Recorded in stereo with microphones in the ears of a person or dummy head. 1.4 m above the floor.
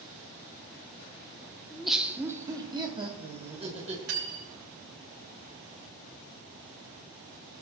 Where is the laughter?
10° left (ahead or behind), 0.8 m; by 4.0 s 30° right (ahead or behind), 2 m.